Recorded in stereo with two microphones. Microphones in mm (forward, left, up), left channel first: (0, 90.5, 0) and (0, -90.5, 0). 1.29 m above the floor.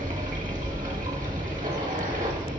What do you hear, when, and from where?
0.0 s running water: 50° right (ahead or behind), 1.6 m